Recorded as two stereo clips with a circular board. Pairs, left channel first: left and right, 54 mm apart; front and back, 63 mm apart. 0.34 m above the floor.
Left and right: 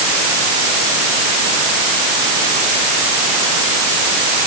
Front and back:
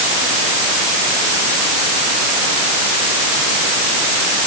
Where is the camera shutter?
I don't hear a camera shutter.